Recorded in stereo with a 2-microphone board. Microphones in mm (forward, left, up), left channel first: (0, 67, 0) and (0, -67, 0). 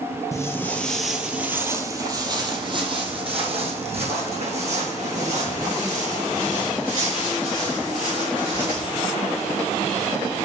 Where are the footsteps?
25° left (ahead or behind), 1.2 m; by 8.9 s 65° right (ahead or behind), 5.5 m.